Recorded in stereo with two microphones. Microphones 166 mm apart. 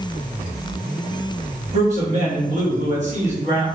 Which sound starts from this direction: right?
A man speaking, at 1.7 s.